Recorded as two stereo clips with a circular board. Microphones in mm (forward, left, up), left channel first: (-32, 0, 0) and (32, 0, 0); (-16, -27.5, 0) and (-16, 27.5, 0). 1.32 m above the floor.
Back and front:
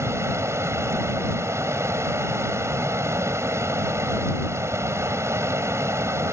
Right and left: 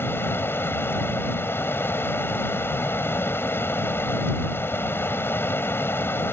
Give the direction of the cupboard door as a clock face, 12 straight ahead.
I don't hear a cupboard door.